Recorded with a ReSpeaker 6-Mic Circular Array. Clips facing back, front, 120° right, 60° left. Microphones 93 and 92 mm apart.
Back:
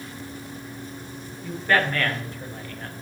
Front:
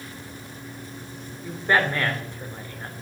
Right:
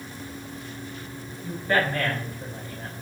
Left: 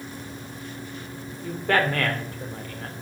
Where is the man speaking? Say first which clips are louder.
Even, left 2 dB; 70° left, 2.5 m.